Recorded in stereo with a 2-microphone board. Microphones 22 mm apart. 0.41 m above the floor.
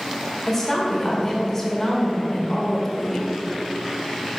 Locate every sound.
0.5 s a woman speaking: 20° left (ahead or behind), 1.4 m